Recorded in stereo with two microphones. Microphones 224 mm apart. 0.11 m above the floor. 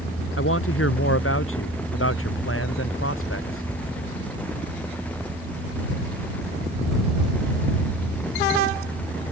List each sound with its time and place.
0.4 s a man speaking: 70° left (ahead or behind)